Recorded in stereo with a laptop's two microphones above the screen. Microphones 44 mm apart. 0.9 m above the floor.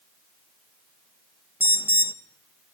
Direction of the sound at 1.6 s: 45° right (ahead or behind).